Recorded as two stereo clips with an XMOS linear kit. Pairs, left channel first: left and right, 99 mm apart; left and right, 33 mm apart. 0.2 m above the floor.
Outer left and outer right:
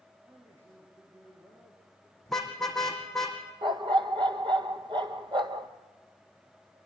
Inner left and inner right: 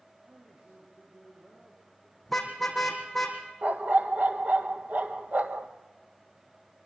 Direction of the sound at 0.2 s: 25° right (ahead or behind).